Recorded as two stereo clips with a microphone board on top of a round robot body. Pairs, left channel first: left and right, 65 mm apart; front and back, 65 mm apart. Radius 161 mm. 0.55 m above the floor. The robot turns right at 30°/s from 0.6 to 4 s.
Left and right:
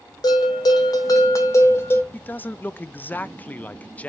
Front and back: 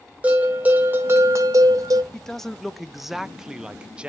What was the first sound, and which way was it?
A bell, 110° left.